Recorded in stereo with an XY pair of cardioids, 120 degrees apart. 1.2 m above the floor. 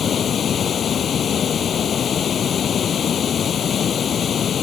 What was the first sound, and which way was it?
Running water, 45° left.